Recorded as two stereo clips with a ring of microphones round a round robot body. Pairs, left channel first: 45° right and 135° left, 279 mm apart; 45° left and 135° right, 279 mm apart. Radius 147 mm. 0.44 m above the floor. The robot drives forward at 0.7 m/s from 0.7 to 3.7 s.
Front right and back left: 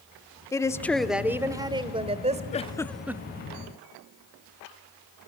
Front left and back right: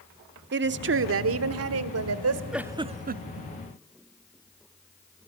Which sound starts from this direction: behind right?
A woman speaking, at 0.5 s.